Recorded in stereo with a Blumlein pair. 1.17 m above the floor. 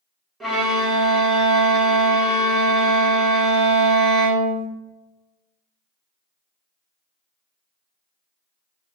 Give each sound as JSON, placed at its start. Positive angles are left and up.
{"t": 0.4, "sound": "a violin", "azimuth_deg": -15, "distance_m": 0.8}